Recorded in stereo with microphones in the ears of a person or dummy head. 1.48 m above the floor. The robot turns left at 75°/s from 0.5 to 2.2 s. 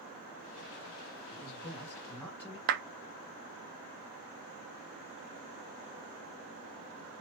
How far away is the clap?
About 0.5 m.